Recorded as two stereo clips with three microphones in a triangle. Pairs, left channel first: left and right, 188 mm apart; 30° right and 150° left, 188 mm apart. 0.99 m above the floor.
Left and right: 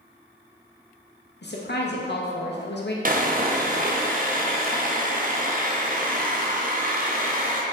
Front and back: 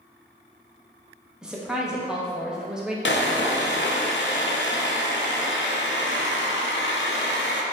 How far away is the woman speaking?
About 0.8 m.